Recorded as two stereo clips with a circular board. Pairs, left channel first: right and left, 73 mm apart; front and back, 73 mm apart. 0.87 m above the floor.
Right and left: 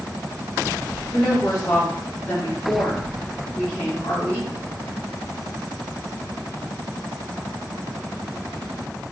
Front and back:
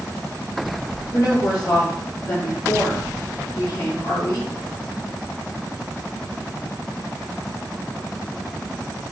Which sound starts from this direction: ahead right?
A woman speaking, at 1.1 s.